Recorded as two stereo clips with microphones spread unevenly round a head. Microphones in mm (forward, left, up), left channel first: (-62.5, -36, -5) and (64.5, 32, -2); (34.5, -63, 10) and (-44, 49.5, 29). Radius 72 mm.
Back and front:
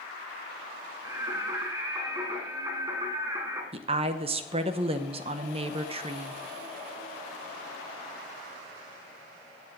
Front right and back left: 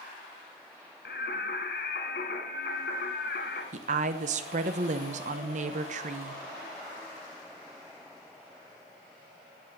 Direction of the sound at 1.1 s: 35° right.